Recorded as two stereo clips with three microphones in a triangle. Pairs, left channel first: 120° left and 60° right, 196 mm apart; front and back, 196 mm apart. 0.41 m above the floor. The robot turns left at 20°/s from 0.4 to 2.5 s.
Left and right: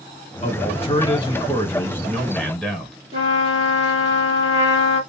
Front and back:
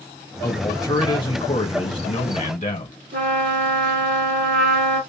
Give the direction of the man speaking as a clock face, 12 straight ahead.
10 o'clock.